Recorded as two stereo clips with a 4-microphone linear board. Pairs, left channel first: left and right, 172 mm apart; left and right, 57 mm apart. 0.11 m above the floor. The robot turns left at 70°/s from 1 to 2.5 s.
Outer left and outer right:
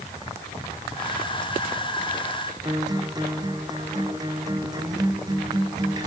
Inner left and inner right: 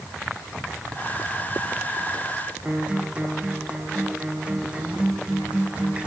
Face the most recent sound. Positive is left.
turn(degrees=-25)  # may be behind; listen again after turning